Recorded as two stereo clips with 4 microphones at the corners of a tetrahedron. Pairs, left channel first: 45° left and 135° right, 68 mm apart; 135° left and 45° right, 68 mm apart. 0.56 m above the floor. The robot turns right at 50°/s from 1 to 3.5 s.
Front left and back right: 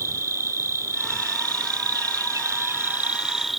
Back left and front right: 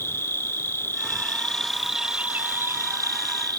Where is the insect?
175° right; by 3.6 s 50° right.